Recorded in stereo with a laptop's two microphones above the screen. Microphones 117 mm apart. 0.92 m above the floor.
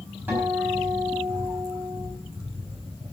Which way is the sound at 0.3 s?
15° right (ahead or behind).